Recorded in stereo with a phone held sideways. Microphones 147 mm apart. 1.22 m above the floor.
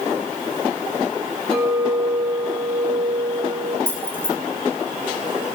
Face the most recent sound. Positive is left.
turn(degrees=-15)  # may be behind; listen again after turning